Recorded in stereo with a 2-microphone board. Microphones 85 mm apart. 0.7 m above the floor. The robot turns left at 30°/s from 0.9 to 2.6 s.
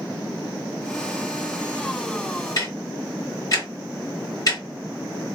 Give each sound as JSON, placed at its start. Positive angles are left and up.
{"t": 2.6, "sound": "ticking", "side_deg": 45, "distance_m": 1.5}